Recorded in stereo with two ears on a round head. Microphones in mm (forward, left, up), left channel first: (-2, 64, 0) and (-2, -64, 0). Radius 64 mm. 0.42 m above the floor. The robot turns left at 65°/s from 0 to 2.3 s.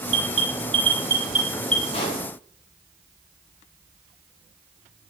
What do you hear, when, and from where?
0.1 s an alarm: 50° right (ahead or behind), 2 m; by 1.8 s 10° left (ahead or behind), 2 m
1.9 s a pop: 40° left (ahead or behind), 3 m; by 2.2 s 25° left (ahead or behind), 3 m